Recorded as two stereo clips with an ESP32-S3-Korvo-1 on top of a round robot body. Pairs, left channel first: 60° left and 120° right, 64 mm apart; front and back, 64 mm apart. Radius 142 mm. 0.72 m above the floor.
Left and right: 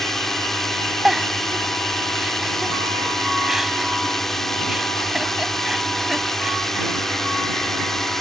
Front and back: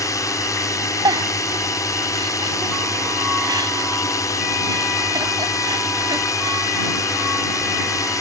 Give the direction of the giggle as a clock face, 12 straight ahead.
7 o'clock.